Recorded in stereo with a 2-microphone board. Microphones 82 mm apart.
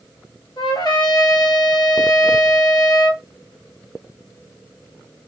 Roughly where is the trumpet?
Left.